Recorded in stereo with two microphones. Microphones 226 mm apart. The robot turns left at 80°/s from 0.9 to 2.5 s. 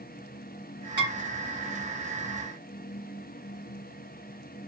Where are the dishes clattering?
55° left (ahead or behind), 1.9 m; by 1.1 s 40° left (ahead or behind), 1.9 m.